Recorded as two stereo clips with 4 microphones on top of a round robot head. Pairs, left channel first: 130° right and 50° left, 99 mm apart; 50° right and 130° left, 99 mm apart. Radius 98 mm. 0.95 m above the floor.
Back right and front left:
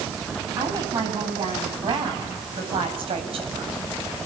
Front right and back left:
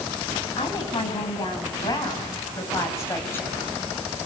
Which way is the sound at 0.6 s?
5° right.